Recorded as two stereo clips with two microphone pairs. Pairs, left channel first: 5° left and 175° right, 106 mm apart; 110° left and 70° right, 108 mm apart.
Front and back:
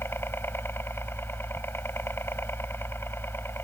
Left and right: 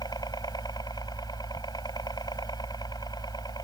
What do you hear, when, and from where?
0.0 s a helicopter: 65° left